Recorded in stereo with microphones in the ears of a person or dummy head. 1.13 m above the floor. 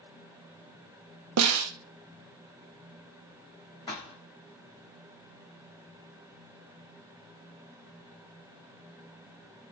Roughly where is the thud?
Left.